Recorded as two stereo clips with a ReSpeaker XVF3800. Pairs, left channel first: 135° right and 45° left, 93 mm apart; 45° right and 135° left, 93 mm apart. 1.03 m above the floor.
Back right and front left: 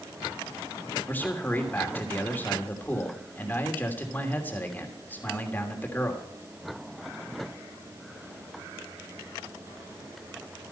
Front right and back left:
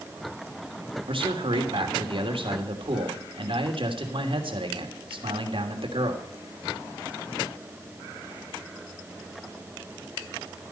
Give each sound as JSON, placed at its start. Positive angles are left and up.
{"t": 1.1, "sound": "a man speaking", "azimuth_deg": 155, "distance_m": 3.0}